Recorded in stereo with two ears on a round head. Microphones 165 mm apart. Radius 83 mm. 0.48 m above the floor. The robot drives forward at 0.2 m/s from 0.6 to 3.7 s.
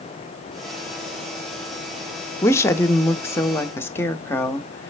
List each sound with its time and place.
2.4 s a woman speaking: 15° left (ahead or behind), 0.8 m